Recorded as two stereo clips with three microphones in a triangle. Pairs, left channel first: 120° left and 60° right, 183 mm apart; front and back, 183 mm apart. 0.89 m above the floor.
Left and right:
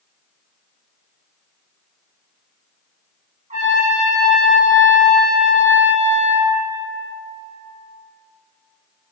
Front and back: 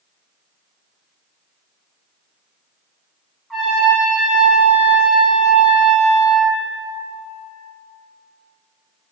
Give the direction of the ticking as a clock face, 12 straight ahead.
I don't hear ticking.